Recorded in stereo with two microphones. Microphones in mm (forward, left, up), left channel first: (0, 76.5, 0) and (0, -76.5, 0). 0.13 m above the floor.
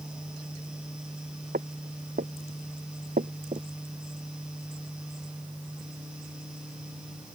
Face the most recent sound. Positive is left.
turn(degrees=-40)  # may be behind; listen again after turning